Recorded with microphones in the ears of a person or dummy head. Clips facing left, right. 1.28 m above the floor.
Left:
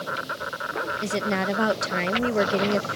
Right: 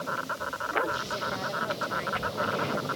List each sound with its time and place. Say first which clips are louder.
0.0 s an insect: left 2 dB; 30° left (ahead or behind)
1.0 s a woman speaking: left 9 dB; 75° left (ahead or behind)